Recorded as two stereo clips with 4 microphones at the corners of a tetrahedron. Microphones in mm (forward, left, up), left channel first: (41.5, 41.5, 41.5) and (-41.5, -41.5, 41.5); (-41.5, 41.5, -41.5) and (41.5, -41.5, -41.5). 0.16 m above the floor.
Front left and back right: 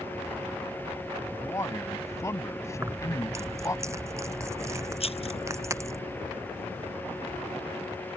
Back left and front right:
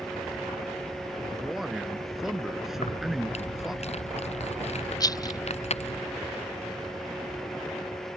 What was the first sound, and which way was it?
A man speaking, 35° left.